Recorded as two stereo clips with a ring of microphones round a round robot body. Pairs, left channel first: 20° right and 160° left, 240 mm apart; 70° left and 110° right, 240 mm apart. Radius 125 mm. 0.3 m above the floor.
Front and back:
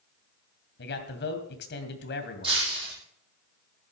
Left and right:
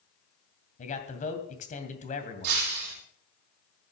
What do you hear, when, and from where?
0.8 s a man speaking: 15° left, 2.5 m
2.4 s breaking glass: 135° right, 5 m